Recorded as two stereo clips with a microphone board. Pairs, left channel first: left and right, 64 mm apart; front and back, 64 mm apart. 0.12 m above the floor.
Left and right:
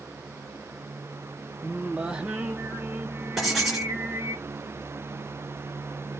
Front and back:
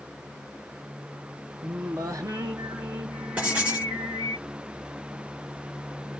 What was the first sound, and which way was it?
Singing, 165° right.